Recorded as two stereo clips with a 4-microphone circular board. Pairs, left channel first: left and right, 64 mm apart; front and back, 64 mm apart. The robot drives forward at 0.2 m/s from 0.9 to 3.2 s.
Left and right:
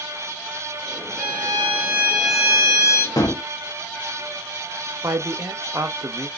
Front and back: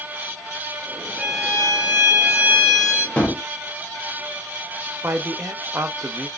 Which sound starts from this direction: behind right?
A man speaking, at 5.0 s.